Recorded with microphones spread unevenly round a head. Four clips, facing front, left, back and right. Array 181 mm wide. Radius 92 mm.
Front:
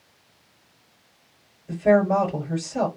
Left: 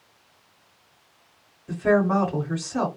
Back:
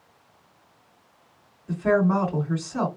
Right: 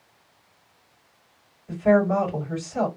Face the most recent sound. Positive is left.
turn(degrees=115)